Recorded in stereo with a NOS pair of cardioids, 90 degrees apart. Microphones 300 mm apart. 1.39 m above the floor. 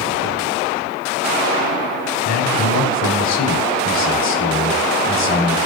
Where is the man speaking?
65° left, 3 m.